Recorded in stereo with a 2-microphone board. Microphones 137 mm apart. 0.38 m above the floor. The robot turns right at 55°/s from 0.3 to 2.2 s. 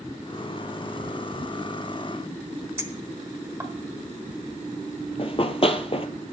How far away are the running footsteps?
About 0.6 m.